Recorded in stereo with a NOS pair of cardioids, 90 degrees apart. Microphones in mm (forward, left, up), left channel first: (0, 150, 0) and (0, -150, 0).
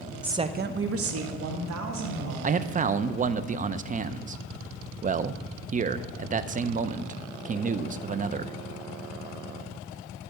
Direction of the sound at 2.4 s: 25° right.